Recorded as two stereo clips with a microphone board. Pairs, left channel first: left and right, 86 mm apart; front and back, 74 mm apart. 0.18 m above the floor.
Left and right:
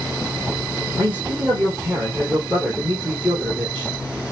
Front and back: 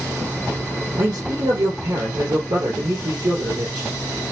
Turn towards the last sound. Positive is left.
turn(degrees=-160)